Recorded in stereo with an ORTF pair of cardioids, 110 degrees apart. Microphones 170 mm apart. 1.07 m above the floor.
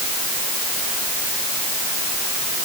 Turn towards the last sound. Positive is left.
No sound to turn to.